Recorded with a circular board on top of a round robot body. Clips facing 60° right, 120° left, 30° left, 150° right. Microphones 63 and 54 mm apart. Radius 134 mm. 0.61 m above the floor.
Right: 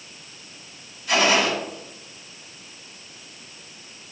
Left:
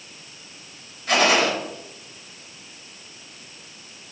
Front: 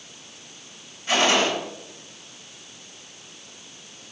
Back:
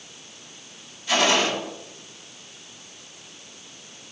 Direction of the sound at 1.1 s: 85° left.